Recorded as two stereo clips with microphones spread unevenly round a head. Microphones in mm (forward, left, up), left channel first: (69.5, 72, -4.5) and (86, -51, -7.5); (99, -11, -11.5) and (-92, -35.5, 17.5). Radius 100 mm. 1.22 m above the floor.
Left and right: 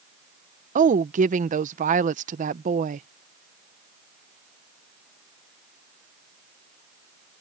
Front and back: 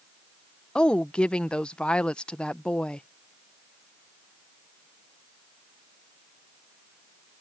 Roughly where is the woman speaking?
Right.